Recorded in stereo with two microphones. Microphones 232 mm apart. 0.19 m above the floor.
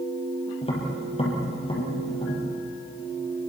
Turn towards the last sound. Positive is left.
turn(degrees=25)  # may be behind; listen again after turning